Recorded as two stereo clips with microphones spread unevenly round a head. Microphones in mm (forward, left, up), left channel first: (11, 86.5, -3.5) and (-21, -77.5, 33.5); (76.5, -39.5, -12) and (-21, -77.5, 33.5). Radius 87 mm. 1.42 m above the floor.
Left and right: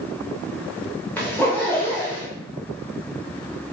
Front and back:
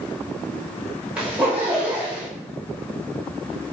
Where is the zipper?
170° left, 0.7 m.